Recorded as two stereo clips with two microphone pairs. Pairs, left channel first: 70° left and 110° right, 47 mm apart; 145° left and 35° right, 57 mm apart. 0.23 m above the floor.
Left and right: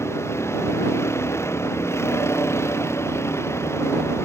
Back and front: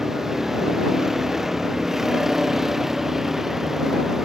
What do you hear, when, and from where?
0.0 s a vehicle: 50° left